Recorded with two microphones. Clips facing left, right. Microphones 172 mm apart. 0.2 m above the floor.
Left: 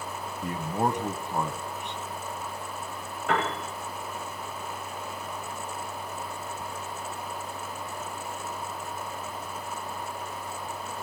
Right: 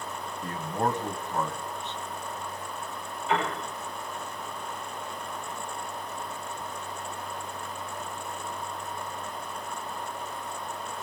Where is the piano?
80° left, 9.5 m.